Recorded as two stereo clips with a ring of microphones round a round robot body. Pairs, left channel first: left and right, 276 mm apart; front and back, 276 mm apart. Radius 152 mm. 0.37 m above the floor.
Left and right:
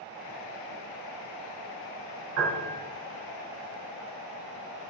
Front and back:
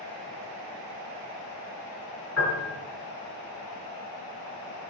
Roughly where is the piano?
Ahead right.